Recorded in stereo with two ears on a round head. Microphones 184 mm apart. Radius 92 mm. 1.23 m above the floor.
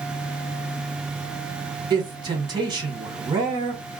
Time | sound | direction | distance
1.9 | a man speaking | 20° right (ahead or behind) | 1.4 m